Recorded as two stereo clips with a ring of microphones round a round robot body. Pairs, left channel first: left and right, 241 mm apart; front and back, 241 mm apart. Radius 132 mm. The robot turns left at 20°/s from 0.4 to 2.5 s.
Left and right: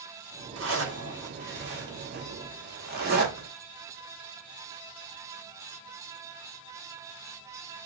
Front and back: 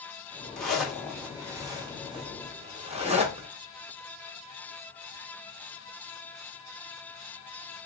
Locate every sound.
0.6 s a zipper: 85° right, 1.6 m; by 3.5 s 125° right, 1.6 m